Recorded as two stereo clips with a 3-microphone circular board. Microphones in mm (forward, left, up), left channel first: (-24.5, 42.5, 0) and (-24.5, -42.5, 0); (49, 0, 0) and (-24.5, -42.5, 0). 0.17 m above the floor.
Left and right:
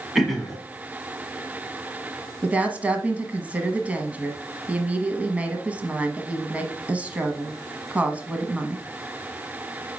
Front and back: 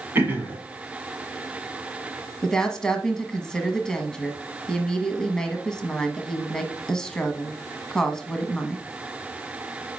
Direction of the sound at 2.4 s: 40° right.